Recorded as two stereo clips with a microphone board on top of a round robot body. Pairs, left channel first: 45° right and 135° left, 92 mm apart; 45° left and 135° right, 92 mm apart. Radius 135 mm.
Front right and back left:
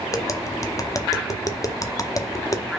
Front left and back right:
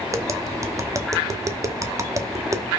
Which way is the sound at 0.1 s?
85° right.